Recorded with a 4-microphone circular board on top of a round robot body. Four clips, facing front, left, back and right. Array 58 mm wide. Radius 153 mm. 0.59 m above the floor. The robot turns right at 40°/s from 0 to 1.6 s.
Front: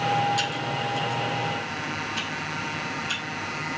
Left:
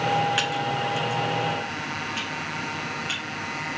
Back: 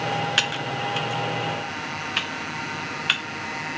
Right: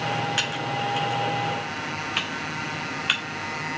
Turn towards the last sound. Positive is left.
turn(degrees=-145)